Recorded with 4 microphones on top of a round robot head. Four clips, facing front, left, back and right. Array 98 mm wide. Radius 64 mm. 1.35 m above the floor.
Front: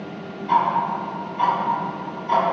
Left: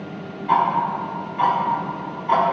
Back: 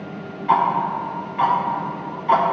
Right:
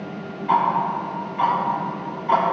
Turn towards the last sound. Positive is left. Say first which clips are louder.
# left 1 dB, back 1 dB
turn(degrees=-170)